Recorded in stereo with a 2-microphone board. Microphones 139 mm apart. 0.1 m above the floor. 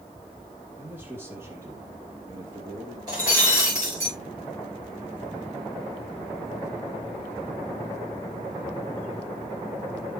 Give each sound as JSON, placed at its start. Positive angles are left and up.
{"t": 0.8, "sound": "a man speaking", "side_deg": -10, "distance_m": 3.0}
{"t": 3.1, "sound": "breaking glass", "side_deg": -25, "distance_m": 6.5}